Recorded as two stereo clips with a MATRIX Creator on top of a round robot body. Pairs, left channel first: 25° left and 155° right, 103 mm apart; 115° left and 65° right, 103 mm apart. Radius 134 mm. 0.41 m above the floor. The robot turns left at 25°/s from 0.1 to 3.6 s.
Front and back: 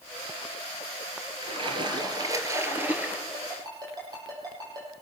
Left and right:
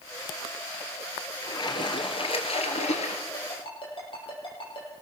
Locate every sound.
1.4 s a splash: 165° left, 2.0 m; by 3.2 s 120° left, 2.0 m
3.3 s a ringtone: 155° left, 7 m; by 4.9 s 150° left, 7 m